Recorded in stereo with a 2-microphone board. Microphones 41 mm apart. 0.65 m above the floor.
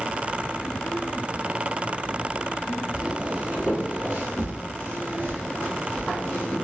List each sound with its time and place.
2.9 s footsteps: 20° right (ahead or behind), 1.3 m; by 6.5 s 70° right (ahead or behind), 3 m